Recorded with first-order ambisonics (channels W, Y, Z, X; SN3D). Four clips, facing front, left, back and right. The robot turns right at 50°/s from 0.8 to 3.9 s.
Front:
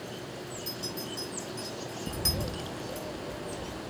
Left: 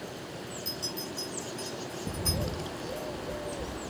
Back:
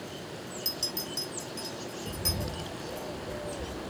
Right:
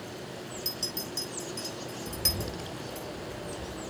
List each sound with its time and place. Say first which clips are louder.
0.7 s a clink: right 2 dB, back 5 dB; 155° right, 4 m; by 3.1 s 40° right, 4 m
2.1 s a bird: right 1 dB, front 2 dB; 55° left, 0.5 m; by 3.9 s 145° left, 0.5 m